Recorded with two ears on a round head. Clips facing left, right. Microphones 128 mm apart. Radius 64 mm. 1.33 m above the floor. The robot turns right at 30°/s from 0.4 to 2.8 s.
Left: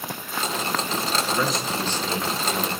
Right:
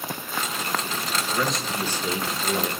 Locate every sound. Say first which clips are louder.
1.3 s a man speaking: right 1 dB; 170° left, 0.9 m; by 2.7 s 145° right, 0.9 m